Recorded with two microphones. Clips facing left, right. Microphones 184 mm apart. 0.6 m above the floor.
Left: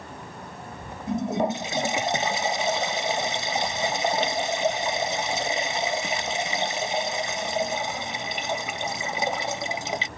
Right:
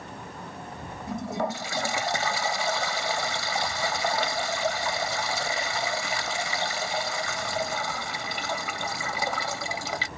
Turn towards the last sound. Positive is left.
turn(degrees=20)  # may be behind; listen again after turning